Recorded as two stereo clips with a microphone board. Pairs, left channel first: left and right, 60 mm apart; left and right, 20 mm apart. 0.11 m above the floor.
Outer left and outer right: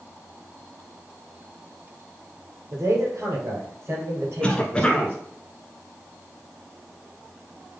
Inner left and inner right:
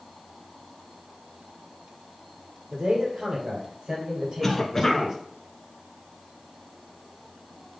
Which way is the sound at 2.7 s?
55° right (ahead or behind).